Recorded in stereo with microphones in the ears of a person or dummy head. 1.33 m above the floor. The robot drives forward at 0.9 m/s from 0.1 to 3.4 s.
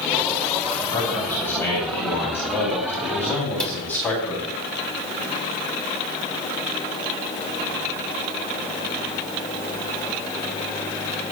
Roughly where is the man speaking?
Centre.